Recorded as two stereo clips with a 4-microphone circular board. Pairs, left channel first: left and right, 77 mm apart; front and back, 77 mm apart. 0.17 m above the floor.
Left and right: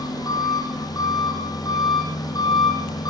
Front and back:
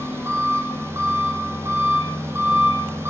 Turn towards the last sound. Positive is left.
turn(degrees=120)